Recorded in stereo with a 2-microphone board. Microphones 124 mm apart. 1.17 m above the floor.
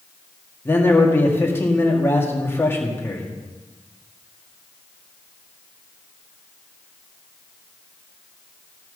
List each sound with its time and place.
0.7 s a man speaking: 20° left (ahead or behind), 2.0 m